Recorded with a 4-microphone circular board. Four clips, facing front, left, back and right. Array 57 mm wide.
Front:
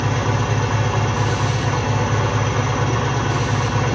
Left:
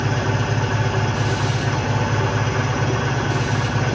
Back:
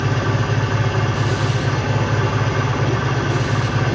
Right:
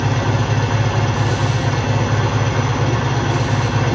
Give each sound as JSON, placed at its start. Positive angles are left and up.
{"t": 0.0, "sound": "an engine running", "azimuth_deg": -65, "distance_m": 2.5}